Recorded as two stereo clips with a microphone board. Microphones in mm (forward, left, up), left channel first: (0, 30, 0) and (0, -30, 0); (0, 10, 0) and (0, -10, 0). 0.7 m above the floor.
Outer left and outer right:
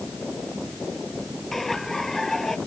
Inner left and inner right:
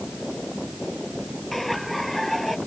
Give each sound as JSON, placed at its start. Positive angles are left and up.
{"t": 1.5, "sound": "laughter", "side_deg": 5}